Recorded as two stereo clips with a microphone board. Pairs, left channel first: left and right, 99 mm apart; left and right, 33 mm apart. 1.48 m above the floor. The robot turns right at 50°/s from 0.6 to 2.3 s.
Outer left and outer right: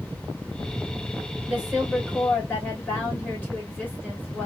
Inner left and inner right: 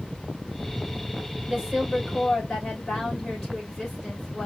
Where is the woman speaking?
25° right, 3 m; by 4.5 s 20° left, 3 m.